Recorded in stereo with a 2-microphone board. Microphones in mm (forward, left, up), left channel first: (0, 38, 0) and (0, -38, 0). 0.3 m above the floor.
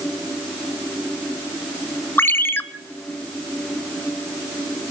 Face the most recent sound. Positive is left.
turn(degrees=30)  # may be behind; listen again after turning